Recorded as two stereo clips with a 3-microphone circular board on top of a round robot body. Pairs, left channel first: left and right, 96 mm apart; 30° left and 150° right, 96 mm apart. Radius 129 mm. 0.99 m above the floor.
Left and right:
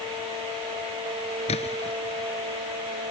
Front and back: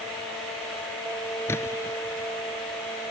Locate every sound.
1.5 s a splash: 100° left